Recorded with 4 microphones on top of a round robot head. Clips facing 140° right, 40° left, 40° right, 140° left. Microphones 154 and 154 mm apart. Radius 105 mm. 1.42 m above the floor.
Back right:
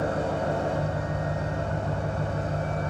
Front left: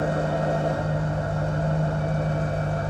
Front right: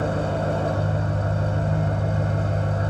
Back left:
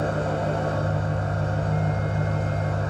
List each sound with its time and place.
0.0 s an engine running: 20° right, 1.0 m